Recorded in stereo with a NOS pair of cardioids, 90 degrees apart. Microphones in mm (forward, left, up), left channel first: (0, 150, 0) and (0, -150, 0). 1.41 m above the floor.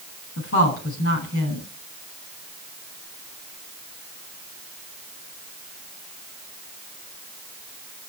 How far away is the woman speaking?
About 7.5 m.